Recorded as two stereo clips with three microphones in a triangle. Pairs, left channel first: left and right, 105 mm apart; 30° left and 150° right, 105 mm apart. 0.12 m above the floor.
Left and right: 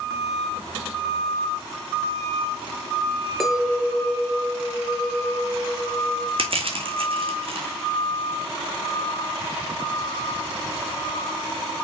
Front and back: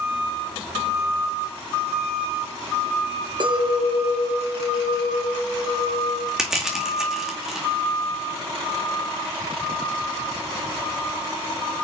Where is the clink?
Straight behind, 1.9 m.